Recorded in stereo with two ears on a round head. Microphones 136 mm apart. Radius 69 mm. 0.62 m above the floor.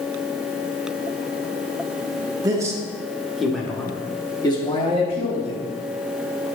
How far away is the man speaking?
About 1.3 m.